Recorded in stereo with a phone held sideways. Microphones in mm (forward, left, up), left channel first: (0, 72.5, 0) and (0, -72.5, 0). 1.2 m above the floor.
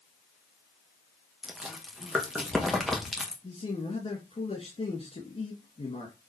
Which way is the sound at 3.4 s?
50° left (ahead or behind).